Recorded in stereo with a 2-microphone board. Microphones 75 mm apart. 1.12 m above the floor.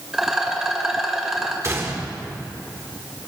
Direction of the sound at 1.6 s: 40° right (ahead or behind).